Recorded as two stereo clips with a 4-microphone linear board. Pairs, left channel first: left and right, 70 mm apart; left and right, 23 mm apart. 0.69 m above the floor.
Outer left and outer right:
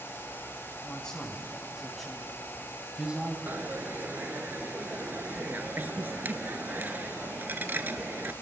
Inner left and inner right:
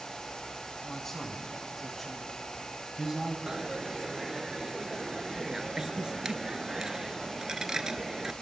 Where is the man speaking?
15° left (ahead or behind), 5.5 m; by 3.4 s 20° right (ahead or behind), 3.5 m.